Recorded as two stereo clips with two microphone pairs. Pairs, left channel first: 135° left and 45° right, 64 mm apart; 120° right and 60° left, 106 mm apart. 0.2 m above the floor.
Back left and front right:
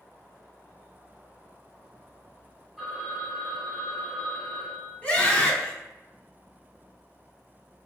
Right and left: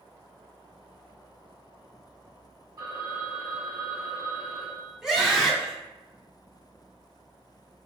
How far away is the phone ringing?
About 1.3 m.